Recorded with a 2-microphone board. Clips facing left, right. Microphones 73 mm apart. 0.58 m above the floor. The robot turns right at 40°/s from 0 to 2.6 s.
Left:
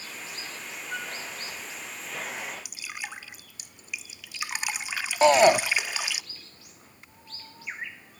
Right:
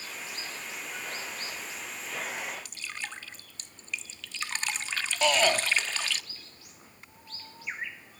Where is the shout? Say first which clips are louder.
Left 8 dB; 30° left (ahead or behind), 0.7 m.